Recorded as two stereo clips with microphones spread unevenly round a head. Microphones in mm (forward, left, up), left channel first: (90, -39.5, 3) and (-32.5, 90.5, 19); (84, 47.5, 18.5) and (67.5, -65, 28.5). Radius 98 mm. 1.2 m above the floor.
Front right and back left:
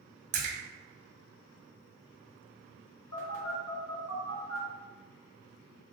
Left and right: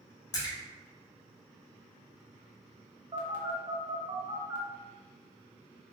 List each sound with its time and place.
0.3 s a splash: 110° left, 0.6 m
3.1 s a phone buzzing: 65° right, 0.9 m